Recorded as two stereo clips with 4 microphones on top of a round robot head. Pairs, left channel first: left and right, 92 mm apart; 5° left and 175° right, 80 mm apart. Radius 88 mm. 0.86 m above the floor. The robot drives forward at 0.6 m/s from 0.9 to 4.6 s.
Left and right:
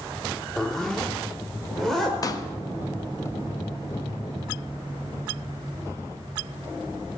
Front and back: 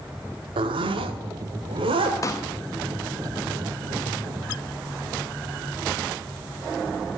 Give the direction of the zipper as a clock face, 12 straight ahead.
6 o'clock.